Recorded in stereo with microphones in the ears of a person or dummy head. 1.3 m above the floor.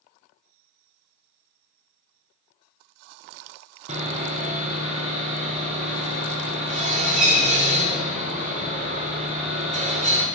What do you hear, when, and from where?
3.9 s sawing: 35° right (ahead or behind), 1.1 m